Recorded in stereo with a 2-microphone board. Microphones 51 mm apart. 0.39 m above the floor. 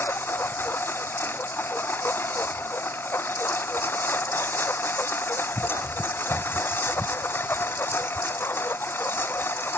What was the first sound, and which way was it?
A lawn mower, 50° left (ahead or behind).